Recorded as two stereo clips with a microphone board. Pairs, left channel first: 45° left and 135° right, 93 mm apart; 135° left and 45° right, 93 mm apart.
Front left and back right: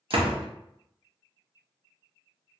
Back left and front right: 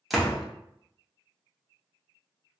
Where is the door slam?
135° right, 0.6 m.